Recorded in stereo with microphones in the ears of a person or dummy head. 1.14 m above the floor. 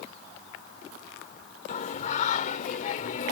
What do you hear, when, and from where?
1.7 s singing: 50° left (ahead or behind)